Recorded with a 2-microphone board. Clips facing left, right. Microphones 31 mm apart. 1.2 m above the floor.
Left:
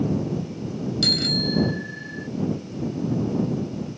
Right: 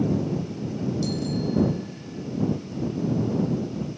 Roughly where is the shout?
No shout in this recording.